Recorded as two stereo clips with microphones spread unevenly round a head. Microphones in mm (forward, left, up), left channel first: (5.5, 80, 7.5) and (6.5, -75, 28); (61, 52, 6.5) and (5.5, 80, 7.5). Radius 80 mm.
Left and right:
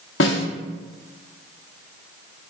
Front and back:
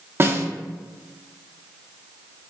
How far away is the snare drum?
About 0.6 m.